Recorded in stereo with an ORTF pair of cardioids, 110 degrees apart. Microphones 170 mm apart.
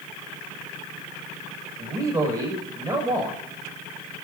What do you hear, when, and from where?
1.8 s a man speaking: 20° right, 7 m